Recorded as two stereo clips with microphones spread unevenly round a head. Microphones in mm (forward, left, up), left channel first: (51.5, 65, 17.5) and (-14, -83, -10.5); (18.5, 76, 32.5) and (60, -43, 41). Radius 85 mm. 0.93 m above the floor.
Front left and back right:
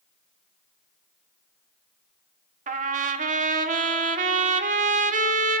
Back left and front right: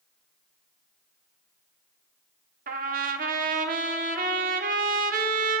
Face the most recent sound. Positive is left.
turn(degrees=-70)